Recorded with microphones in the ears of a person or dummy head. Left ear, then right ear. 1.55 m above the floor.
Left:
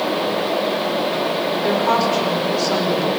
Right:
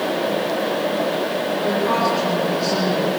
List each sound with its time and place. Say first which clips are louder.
1.6 s a woman speaking: left 2 dB; 70° left (ahead or behind), 5 m